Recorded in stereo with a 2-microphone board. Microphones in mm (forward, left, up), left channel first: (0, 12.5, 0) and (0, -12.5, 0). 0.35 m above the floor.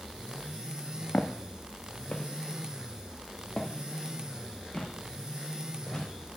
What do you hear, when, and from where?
1.1 s footsteps: 60° left (ahead or behind), 1.2 m; by 6.1 s 30° left (ahead or behind), 4 m